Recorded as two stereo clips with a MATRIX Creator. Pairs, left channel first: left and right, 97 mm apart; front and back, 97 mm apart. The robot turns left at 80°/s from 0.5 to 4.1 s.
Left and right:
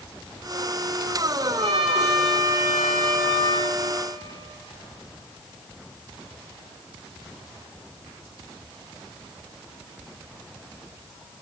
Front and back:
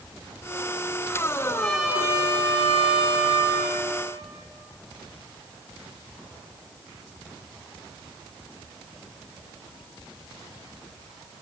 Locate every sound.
1.4 s a trumpet: 60° right, 5.5 m; by 3.7 s 110° left, 5.5 m